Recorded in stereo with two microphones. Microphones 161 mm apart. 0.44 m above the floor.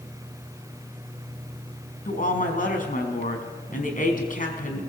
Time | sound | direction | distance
2.0 | a woman speaking | 55° left (ahead or behind) | 4.5 m